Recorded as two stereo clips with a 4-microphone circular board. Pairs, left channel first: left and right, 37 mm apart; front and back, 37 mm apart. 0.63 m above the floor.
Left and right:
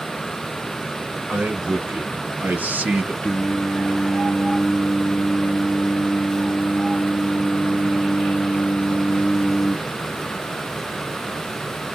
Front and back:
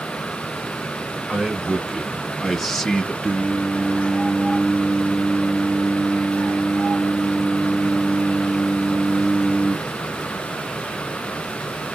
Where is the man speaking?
120° right, 1.3 m; by 3.1 s 70° right, 0.9 m.